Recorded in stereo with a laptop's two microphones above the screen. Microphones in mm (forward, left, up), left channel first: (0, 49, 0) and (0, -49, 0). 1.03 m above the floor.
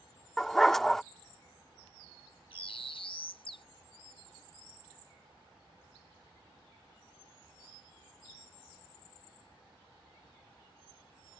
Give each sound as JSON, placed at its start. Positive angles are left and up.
{"t": 0.4, "sound": "a dog barking", "side_deg": 5}
{"t": 2.5, "sound": "a bird", "side_deg": 70}